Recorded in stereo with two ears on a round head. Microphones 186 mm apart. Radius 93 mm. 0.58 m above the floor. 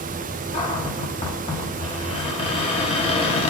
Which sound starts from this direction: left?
A cupboard door, at 0.5 s.